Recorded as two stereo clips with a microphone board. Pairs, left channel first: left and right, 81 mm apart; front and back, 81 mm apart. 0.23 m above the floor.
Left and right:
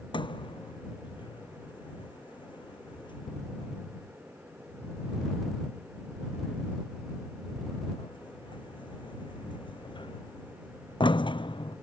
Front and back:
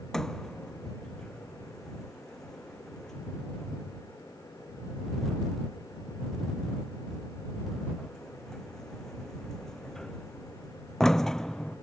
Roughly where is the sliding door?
Left.